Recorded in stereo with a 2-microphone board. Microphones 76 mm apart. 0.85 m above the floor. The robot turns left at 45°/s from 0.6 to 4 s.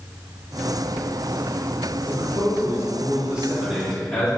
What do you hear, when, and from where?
2.1 s a man speaking: 95° right, 2 m; by 4.3 s straight behind, 2 m